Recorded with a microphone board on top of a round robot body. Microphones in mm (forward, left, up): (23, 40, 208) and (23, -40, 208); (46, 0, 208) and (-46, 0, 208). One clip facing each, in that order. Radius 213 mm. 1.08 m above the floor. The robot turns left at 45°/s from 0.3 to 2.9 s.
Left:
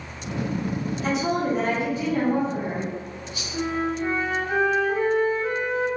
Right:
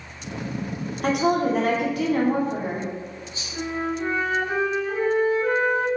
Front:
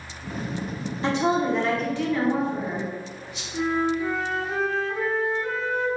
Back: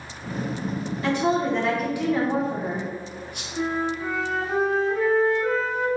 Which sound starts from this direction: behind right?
A flute, at 3.5 s.